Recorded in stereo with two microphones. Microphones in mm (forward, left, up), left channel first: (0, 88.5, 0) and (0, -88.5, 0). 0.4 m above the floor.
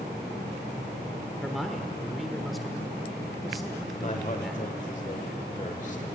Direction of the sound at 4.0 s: 40° left (ahead or behind).